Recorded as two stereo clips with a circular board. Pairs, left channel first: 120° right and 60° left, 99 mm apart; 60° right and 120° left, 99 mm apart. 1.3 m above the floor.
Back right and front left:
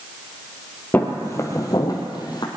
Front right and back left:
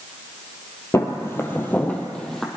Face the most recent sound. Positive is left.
turn(degrees=-145)